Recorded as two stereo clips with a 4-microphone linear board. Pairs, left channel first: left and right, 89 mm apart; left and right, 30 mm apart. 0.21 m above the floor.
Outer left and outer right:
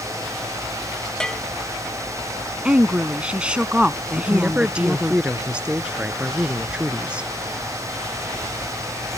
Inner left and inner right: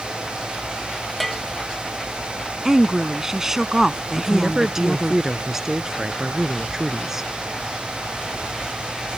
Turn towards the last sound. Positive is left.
turn(degrees=-15)  # may be behind; listen again after turning